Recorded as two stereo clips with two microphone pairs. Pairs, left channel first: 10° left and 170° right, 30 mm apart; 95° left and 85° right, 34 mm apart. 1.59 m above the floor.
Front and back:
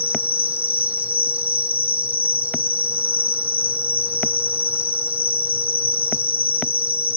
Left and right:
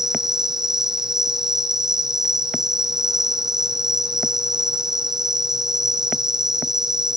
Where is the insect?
155° right, 1.8 m.